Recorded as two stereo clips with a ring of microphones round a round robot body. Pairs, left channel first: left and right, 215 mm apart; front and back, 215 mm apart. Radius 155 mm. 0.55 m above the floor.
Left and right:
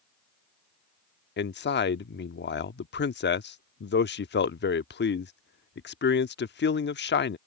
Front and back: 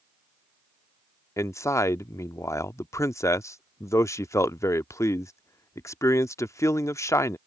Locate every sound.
1.4 s a man speaking: 75° left